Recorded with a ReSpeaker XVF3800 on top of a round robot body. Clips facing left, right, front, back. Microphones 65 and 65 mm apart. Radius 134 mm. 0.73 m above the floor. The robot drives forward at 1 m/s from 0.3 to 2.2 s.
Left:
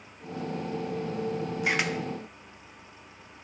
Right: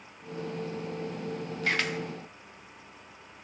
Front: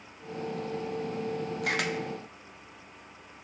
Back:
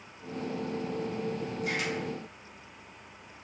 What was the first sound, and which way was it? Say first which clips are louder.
A camera shutter: left 1 dB, front 2 dB; 15° left.